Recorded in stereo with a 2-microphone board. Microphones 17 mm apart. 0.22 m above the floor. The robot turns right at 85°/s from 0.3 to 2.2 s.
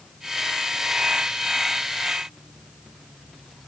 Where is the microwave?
No microwave in this recording.